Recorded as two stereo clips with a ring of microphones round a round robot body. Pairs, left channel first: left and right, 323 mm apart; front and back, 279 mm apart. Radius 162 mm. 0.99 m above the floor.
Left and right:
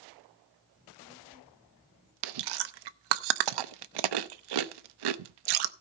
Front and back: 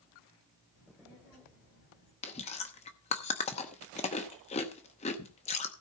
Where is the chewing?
70° right, 0.8 m.